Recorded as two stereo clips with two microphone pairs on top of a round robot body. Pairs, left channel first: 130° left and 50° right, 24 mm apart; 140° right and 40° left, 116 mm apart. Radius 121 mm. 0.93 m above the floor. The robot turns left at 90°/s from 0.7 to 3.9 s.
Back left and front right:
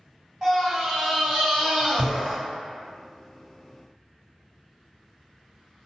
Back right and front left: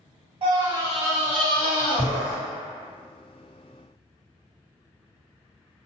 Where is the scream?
10° left, 1.9 m; by 2.4 s 140° right, 1.9 m.